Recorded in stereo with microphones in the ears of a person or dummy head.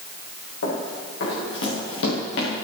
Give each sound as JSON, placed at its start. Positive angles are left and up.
{"t": 0.6, "sound": "running footsteps", "side_deg": 80, "distance_m": 6.0}